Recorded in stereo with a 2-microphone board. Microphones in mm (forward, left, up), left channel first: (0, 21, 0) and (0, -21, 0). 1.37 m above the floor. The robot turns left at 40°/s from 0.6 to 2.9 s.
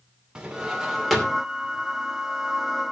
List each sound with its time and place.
0.3 s a drawer: 20° right (ahead or behind), 2.5 m; by 1.4 s 15° left (ahead or behind), 2.5 m